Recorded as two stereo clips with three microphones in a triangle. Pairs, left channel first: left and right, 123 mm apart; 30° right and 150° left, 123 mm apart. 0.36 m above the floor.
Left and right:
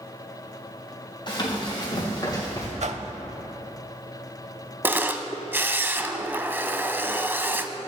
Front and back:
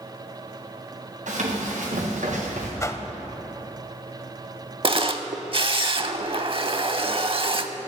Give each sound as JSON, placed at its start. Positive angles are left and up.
{"t": 1.3, "sound": "running footsteps", "azimuth_deg": 140, "distance_m": 4.0}
{"t": 2.8, "sound": "a whoosh", "azimuth_deg": -95, "distance_m": 0.6}
{"t": 4.8, "sound": "a camera shutter", "azimuth_deg": -165, "distance_m": 0.6}